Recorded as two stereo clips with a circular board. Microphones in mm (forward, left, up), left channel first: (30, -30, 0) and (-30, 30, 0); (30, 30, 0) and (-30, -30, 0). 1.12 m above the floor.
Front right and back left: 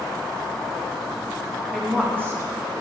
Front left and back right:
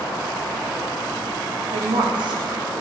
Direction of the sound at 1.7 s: 130° right.